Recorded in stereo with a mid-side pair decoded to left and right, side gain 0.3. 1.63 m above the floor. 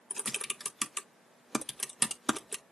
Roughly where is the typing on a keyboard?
Ahead.